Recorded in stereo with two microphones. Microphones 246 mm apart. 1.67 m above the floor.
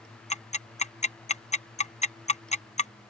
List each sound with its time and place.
0.3 s ticking: 30° left (ahead or behind)